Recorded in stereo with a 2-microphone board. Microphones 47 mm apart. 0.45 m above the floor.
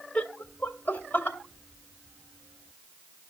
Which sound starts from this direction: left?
Laughter, at 0.1 s.